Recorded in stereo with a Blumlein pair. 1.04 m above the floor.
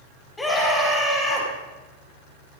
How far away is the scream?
About 5.5 m.